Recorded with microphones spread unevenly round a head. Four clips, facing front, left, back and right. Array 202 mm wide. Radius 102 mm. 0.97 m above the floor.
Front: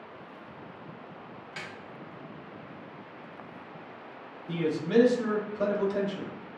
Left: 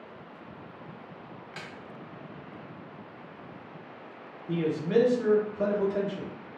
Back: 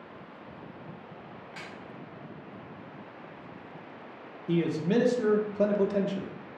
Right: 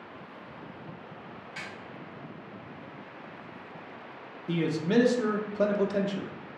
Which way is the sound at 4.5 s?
125° right.